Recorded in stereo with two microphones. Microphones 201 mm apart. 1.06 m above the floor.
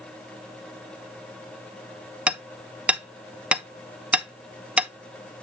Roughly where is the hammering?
Centre.